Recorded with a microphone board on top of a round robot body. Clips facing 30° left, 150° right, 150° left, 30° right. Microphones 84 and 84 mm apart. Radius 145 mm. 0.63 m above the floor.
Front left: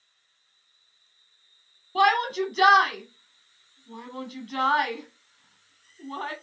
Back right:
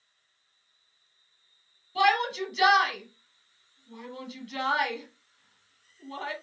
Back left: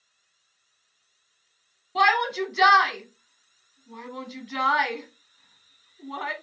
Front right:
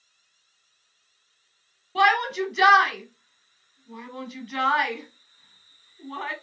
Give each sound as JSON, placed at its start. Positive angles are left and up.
{"t": 1.9, "sound": "a shout", "azimuth_deg": 60, "distance_m": 1.2}